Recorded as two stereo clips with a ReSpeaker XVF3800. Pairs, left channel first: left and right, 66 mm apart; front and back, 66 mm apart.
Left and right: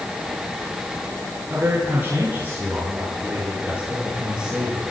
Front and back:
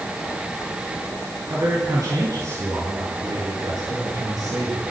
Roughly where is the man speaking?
Behind right.